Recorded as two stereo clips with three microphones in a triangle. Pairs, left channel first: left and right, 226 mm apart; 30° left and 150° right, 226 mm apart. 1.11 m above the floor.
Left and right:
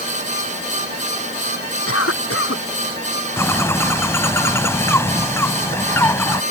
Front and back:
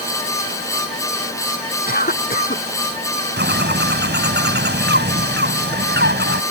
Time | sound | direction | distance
1.9 | a cough | 80° left | ?
3.4 | a bird | 170° left | ?